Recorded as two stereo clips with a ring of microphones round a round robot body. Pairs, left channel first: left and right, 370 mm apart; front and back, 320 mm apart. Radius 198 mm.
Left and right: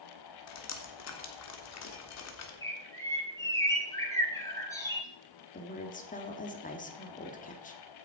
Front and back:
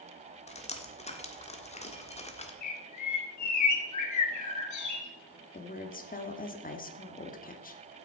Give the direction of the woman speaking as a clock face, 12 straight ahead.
11 o'clock.